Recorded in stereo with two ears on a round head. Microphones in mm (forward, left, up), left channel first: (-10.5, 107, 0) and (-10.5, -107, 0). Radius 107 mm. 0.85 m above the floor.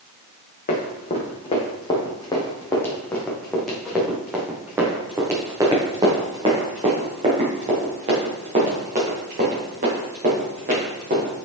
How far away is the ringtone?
I don't hear a ringtone.